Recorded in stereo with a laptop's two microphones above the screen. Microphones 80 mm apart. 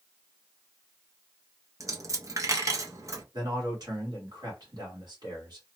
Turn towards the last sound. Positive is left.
turn(degrees=-55)  # may be behind; listen again after turning